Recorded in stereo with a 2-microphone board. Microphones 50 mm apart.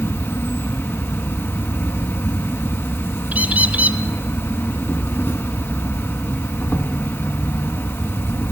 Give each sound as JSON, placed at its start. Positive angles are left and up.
{"t": 0.0, "sound": "an insect", "side_deg": 50, "distance_m": 1.7}
{"t": 3.3, "sound": "a bird", "side_deg": -35, "distance_m": 1.3}